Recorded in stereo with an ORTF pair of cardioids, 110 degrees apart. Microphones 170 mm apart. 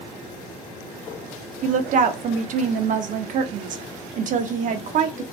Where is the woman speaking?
50° right, 0.6 m.